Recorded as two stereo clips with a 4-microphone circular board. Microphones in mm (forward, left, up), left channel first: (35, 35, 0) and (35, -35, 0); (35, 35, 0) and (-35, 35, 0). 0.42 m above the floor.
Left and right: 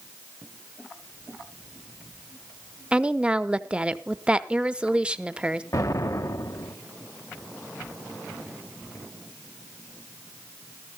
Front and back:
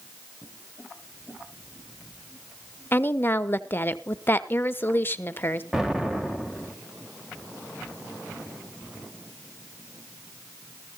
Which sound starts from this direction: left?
An explosion, at 5.7 s.